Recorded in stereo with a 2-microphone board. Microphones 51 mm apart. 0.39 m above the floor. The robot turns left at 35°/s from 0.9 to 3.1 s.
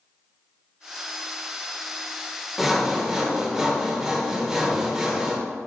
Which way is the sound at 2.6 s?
5° right (ahead or behind).